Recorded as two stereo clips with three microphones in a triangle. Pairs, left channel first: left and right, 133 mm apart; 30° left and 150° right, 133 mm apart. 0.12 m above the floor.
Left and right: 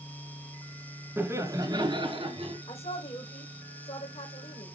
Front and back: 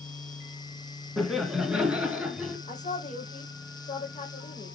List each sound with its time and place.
1.2 s laughter: 60° right, 1.4 m; by 2.6 s 75° right, 2 m
2.7 s a woman speaking: 55° left, 4.5 m